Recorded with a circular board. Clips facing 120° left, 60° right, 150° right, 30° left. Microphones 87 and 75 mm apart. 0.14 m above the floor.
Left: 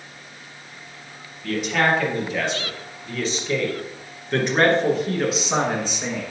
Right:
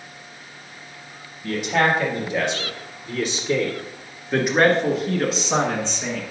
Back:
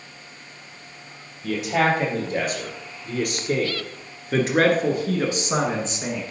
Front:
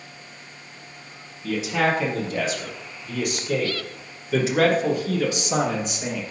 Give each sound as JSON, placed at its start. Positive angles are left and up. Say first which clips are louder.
{"t": 1.4, "sound": "a man speaking", "louder": "right 1 dB, back 1 dB", "azimuth_deg": -125, "distance_m": 3.0}